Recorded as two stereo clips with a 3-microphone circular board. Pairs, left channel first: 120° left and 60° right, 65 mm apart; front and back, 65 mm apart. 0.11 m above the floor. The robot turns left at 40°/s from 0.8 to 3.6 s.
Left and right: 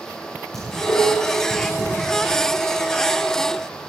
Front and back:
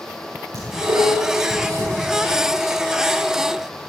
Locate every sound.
0.5 s dishes clattering: 160° right, 7.5 m; by 1.9 s 155° left, 7.5 m